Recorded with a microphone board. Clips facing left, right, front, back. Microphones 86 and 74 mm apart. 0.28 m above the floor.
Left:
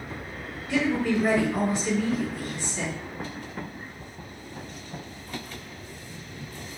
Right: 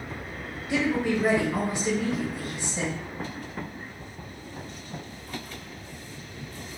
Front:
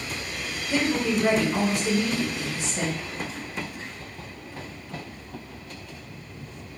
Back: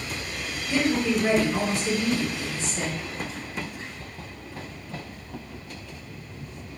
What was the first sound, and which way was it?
A woman speaking, 50° right.